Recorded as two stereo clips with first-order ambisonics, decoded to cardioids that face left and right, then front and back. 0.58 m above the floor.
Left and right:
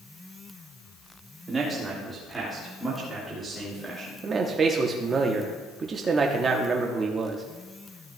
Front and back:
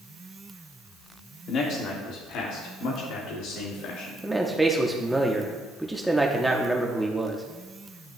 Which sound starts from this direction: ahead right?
A man speaking, at 1.5 s.